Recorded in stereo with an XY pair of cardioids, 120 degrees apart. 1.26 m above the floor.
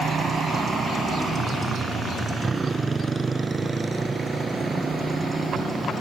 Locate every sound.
0.0 s a motorcycle: 40° right; by 6.0 s 15° right